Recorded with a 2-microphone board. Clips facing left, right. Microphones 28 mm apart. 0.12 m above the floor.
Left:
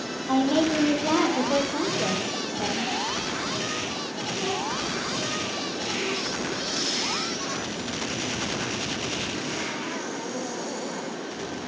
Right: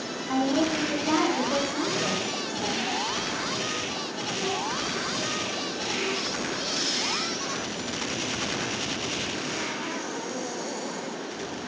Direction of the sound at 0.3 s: 65° left (ahead or behind).